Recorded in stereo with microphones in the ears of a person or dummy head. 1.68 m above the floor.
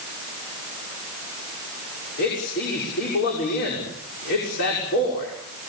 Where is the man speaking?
50° left (ahead or behind), 6 m.